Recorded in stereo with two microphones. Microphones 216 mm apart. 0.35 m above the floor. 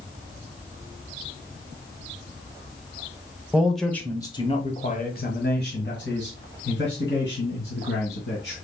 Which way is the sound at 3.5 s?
5° right (ahead or behind).